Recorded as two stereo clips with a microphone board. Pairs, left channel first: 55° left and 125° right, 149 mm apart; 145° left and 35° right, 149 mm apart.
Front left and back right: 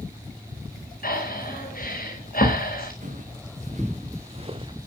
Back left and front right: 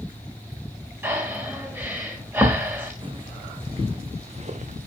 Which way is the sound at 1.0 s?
45° left.